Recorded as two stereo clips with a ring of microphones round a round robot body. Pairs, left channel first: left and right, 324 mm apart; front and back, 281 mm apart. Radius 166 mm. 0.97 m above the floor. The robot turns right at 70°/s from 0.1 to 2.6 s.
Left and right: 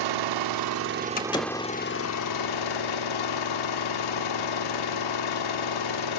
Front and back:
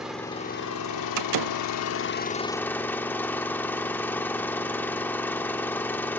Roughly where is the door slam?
Behind left.